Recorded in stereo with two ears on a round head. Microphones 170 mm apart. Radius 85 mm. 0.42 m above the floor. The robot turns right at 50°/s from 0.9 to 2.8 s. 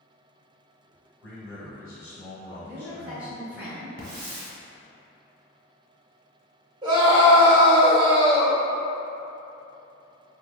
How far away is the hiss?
About 0.9 m.